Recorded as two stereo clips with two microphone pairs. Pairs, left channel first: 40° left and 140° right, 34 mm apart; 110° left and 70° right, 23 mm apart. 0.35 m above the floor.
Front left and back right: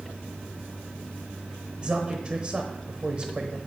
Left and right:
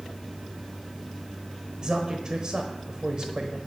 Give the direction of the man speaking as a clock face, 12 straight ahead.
3 o'clock.